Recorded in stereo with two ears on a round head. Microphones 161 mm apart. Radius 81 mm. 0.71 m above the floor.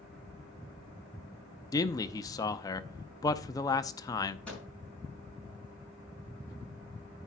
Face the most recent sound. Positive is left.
turn(degrees=5)  # may be behind; listen again after turning